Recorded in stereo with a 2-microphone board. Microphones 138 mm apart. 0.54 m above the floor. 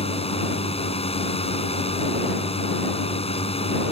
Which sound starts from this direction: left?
A drone, at 0.0 s.